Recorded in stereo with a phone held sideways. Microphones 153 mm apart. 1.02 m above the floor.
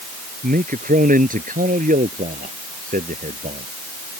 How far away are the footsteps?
No footsteps in this recording.